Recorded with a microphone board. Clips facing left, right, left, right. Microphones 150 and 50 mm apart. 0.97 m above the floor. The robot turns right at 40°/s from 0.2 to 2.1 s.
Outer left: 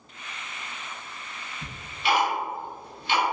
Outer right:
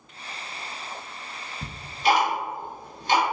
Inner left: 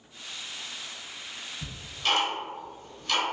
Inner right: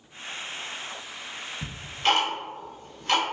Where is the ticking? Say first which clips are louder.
Outer right 5 dB, inner right 5 dB; 25° right (ahead or behind), 0.8 m; by 3.2 s 40° right (ahead or behind), 0.8 m.